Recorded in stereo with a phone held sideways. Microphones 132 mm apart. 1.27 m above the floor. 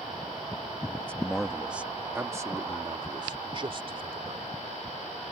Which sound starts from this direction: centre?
A man speaking, at 1.0 s.